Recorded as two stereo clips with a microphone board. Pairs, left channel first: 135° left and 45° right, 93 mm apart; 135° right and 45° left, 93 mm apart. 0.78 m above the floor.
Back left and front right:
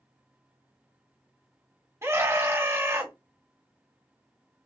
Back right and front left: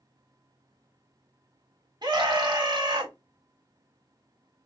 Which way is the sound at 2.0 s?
15° left.